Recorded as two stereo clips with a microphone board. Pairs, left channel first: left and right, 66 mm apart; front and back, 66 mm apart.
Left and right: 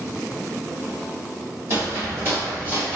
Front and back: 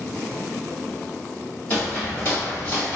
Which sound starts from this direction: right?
Footsteps, at 1.7 s.